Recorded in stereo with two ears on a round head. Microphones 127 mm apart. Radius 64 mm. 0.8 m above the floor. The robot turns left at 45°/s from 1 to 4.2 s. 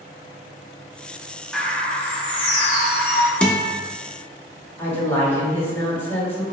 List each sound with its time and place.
1.5 s a bird: 175° left, 0.9 m; by 3.3 s 95° left, 0.9 m
3.4 s a guitar: 5° left (ahead or behind), 0.5 m; by 3.7 s 20° left (ahead or behind), 0.5 m
4.8 s a woman speaking: 15° left (ahead or behind), 1.7 m